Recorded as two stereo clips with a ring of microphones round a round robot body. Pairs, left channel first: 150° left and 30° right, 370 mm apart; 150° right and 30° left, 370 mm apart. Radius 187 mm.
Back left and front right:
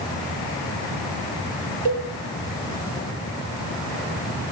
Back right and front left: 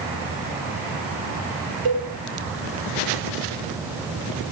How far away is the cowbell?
About 8 m.